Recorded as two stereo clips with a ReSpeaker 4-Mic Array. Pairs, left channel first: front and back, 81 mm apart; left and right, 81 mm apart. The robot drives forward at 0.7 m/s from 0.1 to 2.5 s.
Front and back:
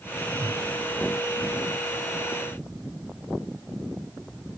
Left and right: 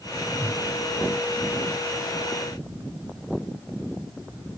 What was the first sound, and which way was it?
A whoosh, 90° left.